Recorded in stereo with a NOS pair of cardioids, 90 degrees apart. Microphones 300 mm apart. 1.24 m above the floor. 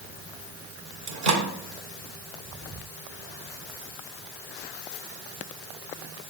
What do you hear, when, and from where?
1.1 s a microwave: 65° right, 1.9 m